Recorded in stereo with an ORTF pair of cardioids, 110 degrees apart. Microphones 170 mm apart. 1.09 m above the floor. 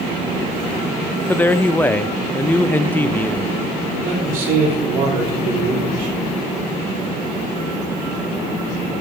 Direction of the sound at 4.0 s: 55° right.